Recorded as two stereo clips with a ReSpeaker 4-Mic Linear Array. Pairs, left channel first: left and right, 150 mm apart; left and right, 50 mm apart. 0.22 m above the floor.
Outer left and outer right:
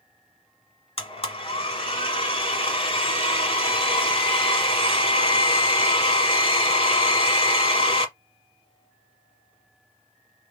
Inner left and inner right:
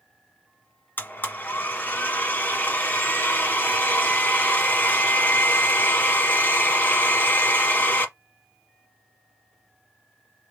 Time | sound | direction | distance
1.0 | a blender | 40° left (ahead or behind) | 1.1 m